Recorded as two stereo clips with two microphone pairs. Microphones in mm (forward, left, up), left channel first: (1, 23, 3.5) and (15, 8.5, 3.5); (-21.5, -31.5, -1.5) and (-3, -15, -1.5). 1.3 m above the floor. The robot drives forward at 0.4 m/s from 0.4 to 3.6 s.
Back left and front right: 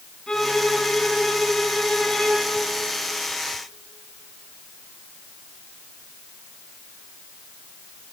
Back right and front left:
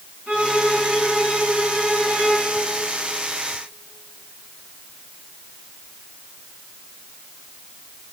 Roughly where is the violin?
Left.